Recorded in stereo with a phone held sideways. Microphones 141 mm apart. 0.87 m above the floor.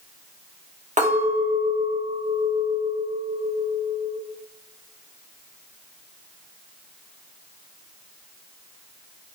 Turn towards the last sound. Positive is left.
turn(degrees=-60)  # may be behind; listen again after turning